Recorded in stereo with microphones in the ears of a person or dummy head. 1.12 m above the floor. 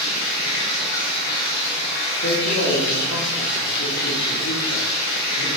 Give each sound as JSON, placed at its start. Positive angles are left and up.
{"t": 0.0, "sound": "running water", "side_deg": 55, "distance_m": 1.7}
{"t": 2.2, "sound": "a man speaking", "side_deg": 70, "distance_m": 1.9}